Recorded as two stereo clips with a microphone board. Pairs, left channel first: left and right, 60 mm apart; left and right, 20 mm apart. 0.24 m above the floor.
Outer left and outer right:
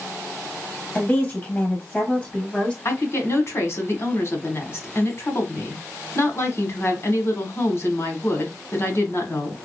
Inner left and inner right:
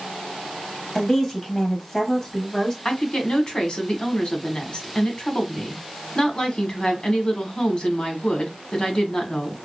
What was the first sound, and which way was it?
A woman speaking, 25° left (ahead or behind).